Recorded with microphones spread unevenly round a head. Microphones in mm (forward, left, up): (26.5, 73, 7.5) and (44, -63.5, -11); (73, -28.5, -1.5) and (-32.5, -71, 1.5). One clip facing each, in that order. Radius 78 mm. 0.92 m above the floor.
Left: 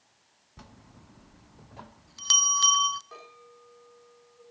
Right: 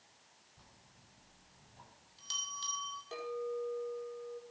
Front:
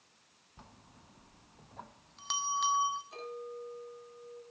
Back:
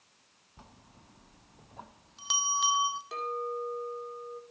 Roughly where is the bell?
Behind left.